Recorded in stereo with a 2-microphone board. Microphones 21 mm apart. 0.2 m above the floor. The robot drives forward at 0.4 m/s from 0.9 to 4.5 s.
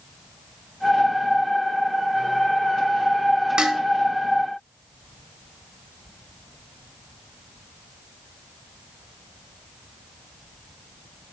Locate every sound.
3.6 s dishes clattering: 45° right (ahead or behind), 1.0 m